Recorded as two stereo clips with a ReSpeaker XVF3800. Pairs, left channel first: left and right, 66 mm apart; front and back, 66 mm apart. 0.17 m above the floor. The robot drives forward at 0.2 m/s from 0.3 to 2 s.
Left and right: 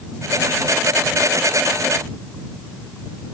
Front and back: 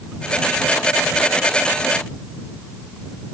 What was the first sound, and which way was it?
Only background noise.